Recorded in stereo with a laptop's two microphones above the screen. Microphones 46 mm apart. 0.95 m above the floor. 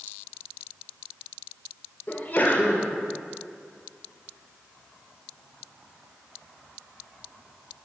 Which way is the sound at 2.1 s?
40° left (ahead or behind).